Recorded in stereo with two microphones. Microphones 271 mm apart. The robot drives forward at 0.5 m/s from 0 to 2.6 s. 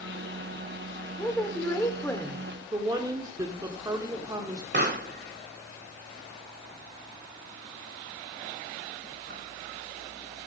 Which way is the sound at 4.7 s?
40° right (ahead or behind).